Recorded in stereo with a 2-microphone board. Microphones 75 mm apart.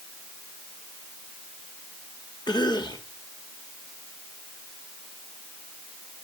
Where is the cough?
70° left (ahead or behind), 2.0 m.